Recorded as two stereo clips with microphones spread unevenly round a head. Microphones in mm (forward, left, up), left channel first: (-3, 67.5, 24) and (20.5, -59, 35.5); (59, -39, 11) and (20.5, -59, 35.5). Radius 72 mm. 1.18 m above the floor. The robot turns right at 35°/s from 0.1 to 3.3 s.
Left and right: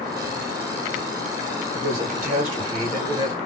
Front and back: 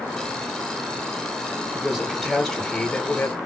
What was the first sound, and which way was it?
A man speaking, 65° right.